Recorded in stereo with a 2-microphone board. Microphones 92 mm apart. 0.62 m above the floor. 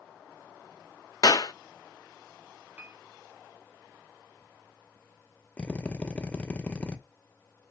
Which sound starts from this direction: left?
A clap, at 1.2 s.